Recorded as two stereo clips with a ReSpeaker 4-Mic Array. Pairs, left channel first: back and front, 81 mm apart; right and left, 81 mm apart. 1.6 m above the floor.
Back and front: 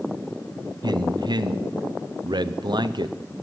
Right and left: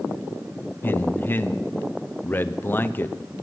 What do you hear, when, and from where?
0.8 s a man speaking: 25° right, 0.6 m